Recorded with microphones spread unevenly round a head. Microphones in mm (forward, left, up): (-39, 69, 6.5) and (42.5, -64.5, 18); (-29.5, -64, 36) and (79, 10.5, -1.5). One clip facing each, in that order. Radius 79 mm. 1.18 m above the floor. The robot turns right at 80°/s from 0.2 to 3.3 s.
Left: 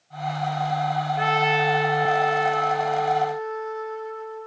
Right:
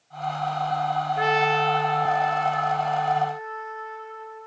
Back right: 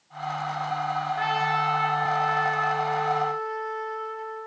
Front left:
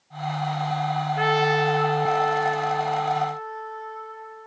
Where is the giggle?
No giggle in this recording.